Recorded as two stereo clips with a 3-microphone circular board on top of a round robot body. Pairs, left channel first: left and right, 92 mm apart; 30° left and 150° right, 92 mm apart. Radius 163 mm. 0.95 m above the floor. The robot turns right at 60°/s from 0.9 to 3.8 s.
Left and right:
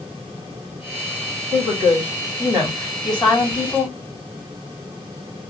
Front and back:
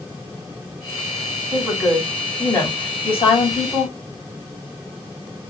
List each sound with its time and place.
1.5 s a woman speaking: 90° right, 3 m; by 4.0 s 45° left, 3 m